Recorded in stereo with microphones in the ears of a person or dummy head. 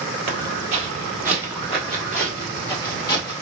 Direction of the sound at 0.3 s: 30° right (ahead or behind).